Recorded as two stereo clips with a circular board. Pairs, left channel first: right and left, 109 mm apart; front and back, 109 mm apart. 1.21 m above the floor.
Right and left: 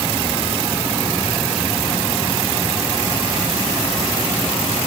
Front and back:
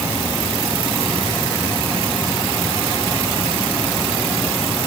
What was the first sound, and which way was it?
Only background noise.